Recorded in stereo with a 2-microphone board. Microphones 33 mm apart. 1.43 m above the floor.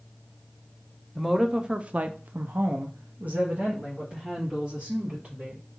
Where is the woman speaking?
5° right (ahead or behind), 0.8 m; by 5.6 s 40° right (ahead or behind), 2.5 m.